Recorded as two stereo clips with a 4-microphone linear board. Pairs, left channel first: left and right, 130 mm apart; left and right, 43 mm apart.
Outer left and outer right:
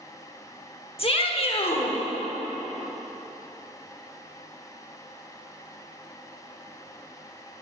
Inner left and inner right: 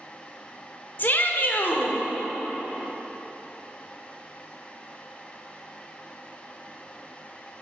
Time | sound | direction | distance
1.0 | a shout | 45° left (ahead or behind) | 1.0 m